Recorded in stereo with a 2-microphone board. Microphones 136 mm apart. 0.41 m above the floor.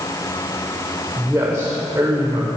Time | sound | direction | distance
1.2 | a man speaking | 25° right (ahead or behind) | 1.7 m